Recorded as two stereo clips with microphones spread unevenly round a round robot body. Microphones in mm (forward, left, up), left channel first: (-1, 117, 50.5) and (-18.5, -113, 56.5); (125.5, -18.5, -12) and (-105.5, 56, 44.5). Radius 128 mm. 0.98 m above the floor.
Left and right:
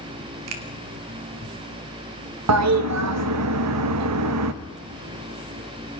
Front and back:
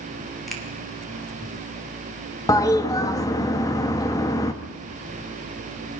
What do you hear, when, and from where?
0.5 s a finger snap: 105° right, 2.5 m
2.5 s a toilet flushing: 90° right, 1.0 m